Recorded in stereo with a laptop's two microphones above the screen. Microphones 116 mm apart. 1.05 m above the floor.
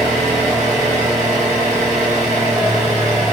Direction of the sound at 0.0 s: 85° right.